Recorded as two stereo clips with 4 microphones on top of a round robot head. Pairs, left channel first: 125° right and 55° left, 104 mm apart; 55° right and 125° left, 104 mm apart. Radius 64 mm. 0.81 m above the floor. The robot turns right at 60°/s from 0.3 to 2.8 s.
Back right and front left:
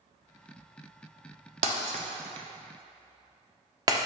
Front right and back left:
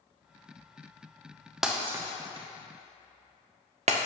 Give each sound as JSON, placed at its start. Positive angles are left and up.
{"t": 1.6, "sound": "breaking glass", "azimuth_deg": 40, "distance_m": 0.9}